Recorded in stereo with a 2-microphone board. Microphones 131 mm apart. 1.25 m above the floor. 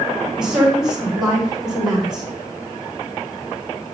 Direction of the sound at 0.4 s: 5° right (ahead or behind).